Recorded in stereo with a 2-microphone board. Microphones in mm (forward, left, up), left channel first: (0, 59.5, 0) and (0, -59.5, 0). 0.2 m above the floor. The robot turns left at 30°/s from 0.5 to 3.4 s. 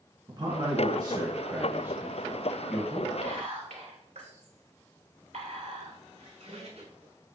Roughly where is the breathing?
I don't hear breathing.